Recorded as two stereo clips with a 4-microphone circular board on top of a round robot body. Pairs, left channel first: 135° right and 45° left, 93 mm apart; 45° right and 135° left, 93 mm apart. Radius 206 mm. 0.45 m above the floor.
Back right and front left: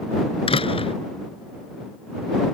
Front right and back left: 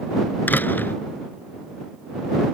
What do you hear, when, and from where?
0.5 s a door slam: 115° right